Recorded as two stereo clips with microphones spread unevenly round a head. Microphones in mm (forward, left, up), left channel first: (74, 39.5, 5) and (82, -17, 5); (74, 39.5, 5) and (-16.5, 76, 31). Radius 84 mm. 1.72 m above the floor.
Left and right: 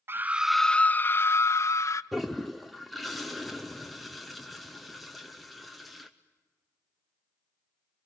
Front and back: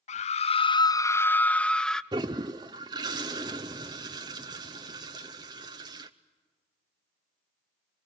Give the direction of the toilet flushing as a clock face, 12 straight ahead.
6 o'clock.